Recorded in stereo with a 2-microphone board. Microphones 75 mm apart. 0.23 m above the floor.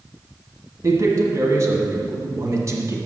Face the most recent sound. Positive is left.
turn(degrees=-45)  # may be behind; listen again after turning